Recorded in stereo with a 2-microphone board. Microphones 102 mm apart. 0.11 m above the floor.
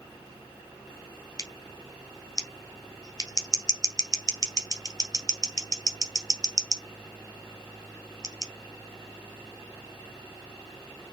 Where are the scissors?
35° left (ahead or behind), 1.4 m.